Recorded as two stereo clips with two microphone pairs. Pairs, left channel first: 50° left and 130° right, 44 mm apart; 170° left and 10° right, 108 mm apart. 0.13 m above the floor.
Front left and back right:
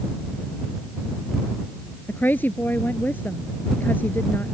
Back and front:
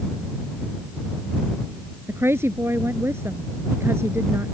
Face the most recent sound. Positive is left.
turn(degrees=45)